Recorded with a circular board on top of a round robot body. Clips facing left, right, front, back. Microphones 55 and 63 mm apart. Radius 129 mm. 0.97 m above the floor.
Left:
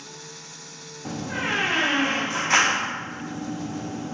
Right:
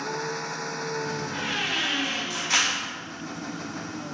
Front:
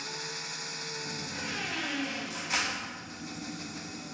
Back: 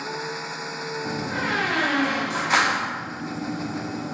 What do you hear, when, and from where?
0.0 s an engine running: 130° right
1.1 s a door slam: 150° left